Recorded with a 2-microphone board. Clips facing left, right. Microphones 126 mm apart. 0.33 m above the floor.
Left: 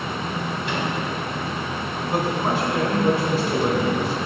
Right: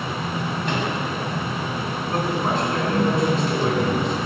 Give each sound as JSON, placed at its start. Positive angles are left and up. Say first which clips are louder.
{"t": 0.7, "sound": "a microwave", "louder": "right 2 dB", "side_deg": -45, "distance_m": 2.5}
{"t": 2.1, "sound": "a man speaking", "louder": "left 1 dB", "side_deg": 10, "distance_m": 3.0}